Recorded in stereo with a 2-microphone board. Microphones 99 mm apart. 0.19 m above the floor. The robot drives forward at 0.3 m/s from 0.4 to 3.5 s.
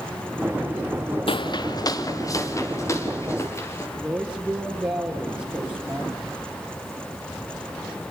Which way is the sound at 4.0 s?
10° right (ahead or behind).